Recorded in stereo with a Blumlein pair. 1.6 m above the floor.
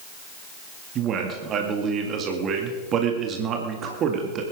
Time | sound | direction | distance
0.9 | a man speaking | 30° right | 2 m